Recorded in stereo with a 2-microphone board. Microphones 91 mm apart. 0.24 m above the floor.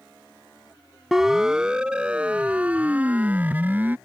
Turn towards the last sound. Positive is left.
turn(degrees=-20)  # may be behind; listen again after turning